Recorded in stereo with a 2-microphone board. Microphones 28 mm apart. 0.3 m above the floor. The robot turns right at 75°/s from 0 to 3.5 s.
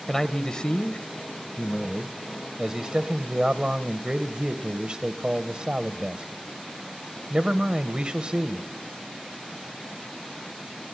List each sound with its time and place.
0.1 s a man speaking: 25° left, 1.1 m; by 8.7 s 80° right, 1.1 m